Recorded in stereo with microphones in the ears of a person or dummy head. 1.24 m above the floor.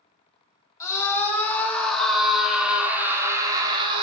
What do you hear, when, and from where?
0.8 s a scream: 10° left (ahead or behind), 3.5 m; by 4.0 s 35° right (ahead or behind), 2.5 m